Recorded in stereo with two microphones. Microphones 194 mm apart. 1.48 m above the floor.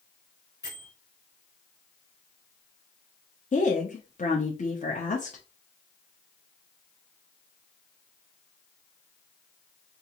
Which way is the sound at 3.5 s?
40° left (ahead or behind).